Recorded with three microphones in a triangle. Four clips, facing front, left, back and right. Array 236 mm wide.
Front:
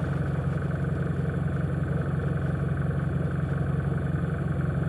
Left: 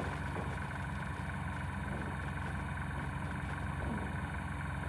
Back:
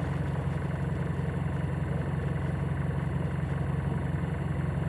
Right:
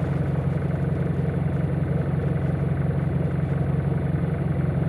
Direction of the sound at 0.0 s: 80° right.